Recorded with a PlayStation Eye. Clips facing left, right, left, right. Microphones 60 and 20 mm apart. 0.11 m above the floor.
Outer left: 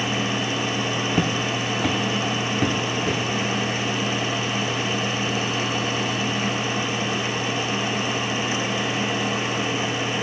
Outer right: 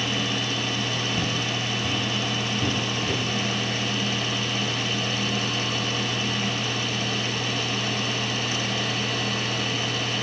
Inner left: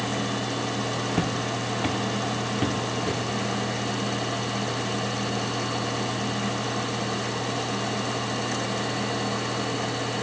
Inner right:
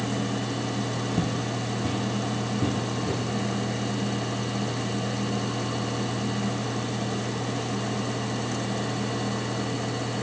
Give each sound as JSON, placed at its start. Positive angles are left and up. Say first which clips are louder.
{"t": 1.1, "sound": "footsteps", "louder": "outer left 4 dB, inner left 2 dB", "side_deg": 60, "distance_m": 0.6}